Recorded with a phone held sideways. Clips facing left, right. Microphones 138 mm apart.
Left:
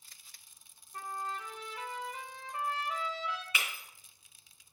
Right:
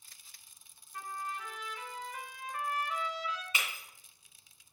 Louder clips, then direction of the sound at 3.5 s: Even; 25° right (ahead or behind).